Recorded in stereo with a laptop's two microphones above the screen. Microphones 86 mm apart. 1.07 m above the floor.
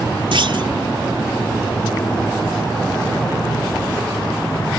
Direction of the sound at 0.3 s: 75° right (ahead or behind).